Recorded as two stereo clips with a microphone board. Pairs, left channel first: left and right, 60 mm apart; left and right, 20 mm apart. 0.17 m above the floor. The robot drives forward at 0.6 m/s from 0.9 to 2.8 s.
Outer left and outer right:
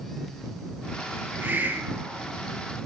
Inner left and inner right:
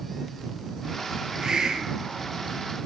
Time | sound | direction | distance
1.4 | a hiss | 30° right (ahead or behind) | 2.5 m